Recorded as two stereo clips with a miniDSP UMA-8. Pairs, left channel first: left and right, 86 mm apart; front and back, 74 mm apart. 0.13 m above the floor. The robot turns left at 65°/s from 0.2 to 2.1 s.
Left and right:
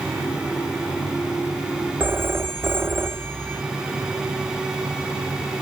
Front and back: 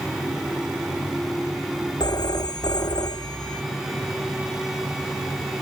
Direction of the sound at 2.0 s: 20° right.